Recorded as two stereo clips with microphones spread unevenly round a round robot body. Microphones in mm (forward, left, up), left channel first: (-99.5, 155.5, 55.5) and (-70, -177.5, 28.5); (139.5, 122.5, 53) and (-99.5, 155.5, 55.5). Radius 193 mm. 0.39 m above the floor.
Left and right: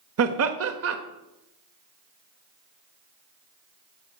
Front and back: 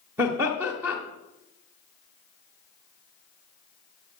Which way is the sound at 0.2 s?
110° right.